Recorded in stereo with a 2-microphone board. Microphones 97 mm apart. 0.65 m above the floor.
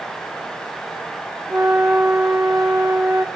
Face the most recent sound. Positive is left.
turn(degrees=-25)  # may be behind; listen again after turning